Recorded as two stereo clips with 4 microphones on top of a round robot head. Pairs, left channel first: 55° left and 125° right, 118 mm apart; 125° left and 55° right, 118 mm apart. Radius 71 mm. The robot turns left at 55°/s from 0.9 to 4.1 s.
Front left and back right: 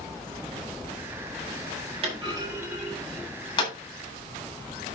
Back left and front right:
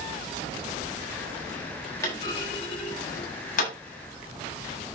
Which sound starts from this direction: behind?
A clunk, at 2.0 s.